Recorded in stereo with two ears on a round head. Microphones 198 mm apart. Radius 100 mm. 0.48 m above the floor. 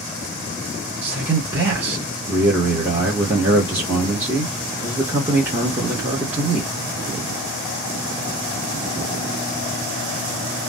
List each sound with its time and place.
1.0 s a man speaking: 10° right (ahead or behind), 1.2 m